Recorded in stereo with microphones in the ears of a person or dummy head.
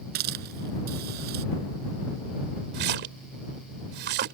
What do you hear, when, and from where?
0.1 s a hiss: 60° right (ahead or behind)
2.7 s a splash: 65° right (ahead or behind)